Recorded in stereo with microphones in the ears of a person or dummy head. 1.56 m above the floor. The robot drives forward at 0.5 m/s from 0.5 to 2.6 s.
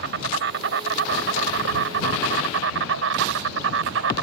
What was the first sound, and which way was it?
An insect, 65° right (ahead or behind).